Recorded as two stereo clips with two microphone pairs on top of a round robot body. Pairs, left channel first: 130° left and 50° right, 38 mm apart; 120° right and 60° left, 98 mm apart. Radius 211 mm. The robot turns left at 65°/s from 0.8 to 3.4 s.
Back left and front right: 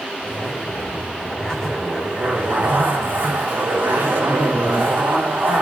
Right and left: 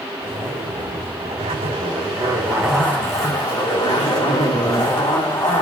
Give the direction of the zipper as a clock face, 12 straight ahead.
9 o'clock.